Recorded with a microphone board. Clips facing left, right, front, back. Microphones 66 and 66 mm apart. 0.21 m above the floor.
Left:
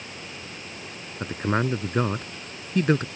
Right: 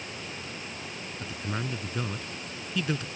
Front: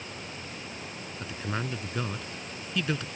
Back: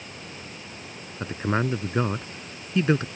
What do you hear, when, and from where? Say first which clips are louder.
1.2 s a man speaking: left 10 dB, back 9 dB; 130° left